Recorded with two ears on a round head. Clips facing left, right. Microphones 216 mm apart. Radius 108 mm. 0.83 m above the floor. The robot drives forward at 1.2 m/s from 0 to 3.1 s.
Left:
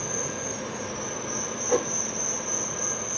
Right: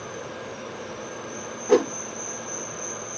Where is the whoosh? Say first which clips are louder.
Right 7 dB; 60° right (ahead or behind).